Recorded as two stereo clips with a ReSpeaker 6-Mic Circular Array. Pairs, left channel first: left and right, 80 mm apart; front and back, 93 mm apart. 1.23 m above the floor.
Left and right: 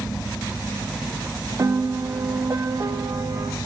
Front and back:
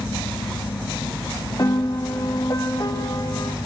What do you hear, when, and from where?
1.6 s a piano: 45° right, 1.4 m